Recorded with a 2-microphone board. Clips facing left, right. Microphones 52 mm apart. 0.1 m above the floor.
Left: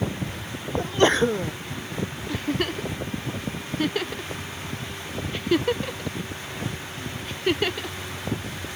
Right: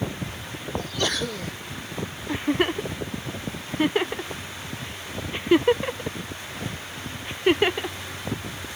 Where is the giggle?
25° right (ahead or behind).